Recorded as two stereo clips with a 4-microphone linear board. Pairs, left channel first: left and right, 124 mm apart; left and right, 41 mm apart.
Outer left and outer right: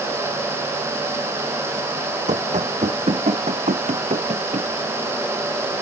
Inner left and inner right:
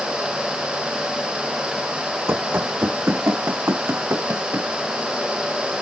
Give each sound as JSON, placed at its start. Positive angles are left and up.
{"t": 2.3, "sound": "running footsteps", "side_deg": -70}